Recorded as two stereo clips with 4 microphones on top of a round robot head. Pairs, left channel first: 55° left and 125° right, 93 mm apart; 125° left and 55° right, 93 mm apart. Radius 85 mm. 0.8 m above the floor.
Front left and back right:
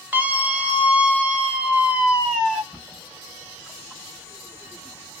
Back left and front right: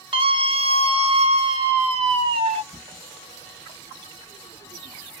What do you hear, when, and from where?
0.1 s a scream: 55° right, 1.7 m; by 2.6 s 45° right, 3.5 m
2.7 s a cupboard door: 40° right, 3.5 m